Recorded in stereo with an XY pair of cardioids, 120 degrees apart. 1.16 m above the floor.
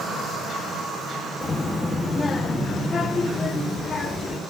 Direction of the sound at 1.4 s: 30° left.